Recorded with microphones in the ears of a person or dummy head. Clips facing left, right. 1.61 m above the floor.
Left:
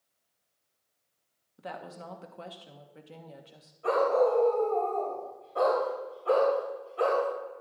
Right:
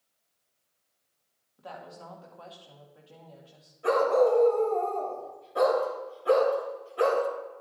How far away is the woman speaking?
About 1.1 m.